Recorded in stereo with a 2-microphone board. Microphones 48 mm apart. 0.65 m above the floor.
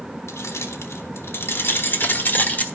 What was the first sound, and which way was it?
Keys jangling, 70° left (ahead or behind).